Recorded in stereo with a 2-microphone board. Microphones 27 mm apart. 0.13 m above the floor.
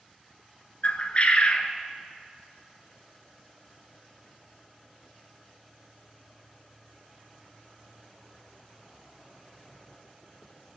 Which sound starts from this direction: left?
A bird, at 0.8 s.